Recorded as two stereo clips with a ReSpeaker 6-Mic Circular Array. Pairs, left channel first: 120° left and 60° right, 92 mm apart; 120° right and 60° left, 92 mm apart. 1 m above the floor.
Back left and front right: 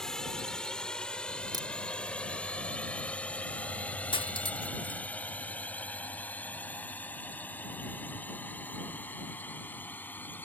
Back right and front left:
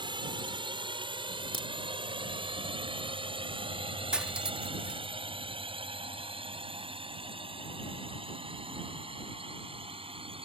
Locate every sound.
0.0 s a drone: 35° left; by 10.5 s 50° left
1.5 s a crack: 105° right
4.1 s cutlery clinking: 140° left